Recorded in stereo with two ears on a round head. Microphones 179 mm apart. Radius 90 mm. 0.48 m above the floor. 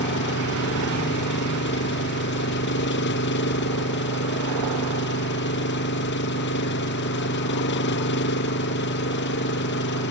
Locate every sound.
0.0 s an engine running: 55° left (ahead or behind)